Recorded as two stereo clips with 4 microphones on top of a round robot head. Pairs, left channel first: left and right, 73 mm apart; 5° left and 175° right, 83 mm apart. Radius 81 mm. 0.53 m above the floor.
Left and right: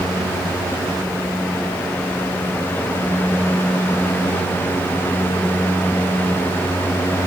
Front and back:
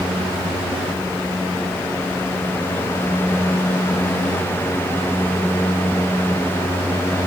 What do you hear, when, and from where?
Only background noise.